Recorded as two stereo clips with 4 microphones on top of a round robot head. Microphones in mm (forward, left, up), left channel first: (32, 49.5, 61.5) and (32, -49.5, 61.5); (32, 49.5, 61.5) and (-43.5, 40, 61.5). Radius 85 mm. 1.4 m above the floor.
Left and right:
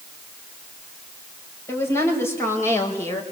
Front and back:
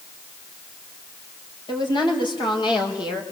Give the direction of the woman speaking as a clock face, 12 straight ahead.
11 o'clock.